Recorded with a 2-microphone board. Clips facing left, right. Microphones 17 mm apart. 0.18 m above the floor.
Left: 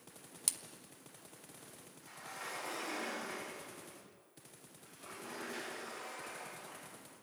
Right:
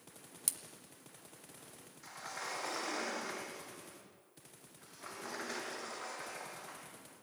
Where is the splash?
20° left (ahead or behind), 1.1 m.